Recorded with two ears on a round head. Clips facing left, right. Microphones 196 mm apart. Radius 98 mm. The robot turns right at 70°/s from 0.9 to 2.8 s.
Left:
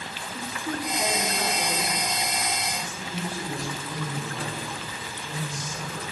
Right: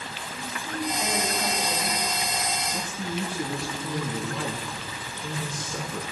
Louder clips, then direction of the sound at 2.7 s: Right 3 dB; 90° right.